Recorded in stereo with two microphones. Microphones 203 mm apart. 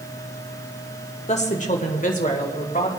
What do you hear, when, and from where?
1.3 s a woman speaking: 35° left (ahead or behind), 1.3 m; by 2.9 s 45° left (ahead or behind), 2 m